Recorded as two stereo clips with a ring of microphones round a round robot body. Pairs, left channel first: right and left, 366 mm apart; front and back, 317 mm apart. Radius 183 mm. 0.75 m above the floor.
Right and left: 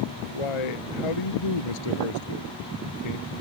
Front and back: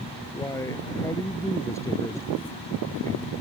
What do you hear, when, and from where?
0.3 s a man speaking: 85° right